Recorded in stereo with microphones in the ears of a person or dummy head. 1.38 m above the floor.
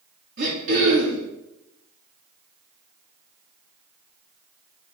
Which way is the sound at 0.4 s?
45° right (ahead or behind).